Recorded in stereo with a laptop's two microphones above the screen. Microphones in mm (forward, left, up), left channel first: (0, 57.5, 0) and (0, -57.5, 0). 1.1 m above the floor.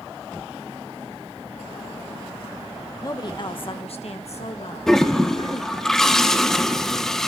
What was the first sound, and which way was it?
A woman speaking, 30° left (ahead or behind).